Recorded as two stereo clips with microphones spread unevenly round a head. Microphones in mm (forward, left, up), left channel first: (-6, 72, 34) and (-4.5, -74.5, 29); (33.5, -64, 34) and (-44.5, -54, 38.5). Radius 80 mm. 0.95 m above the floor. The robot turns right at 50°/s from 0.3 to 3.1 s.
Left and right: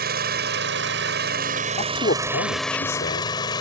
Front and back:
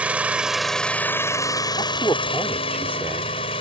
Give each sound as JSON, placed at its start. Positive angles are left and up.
{"t": 0.0, "sound": "an engine running", "azimuth_deg": -115}
{"t": 1.8, "sound": "a man speaking", "azimuth_deg": 40}